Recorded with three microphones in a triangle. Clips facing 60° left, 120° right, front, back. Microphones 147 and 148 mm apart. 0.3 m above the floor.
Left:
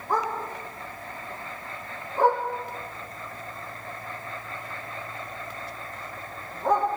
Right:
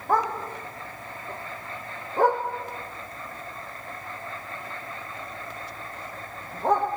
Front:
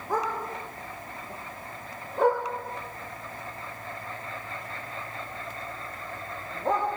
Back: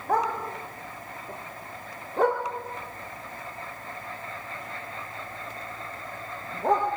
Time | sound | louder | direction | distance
0.1 | a dog barking | right 3 dB, back 3 dB | 160° right | 7 m